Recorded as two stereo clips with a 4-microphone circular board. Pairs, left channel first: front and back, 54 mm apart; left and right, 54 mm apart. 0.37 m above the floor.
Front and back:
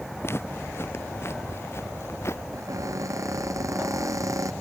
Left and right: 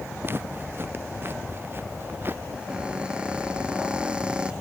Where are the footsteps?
45° right; by 2.4 s 40° right.